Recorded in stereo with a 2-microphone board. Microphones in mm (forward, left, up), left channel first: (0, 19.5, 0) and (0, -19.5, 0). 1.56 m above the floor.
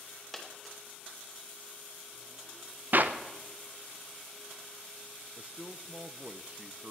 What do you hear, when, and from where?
0.3 s a dropped coin: centre (ahead or behind), 2.5 m
2.9 s a clap: 50° right (ahead or behind), 0.8 m
5.4 s a man speaking: 35° right (ahead or behind), 0.6 m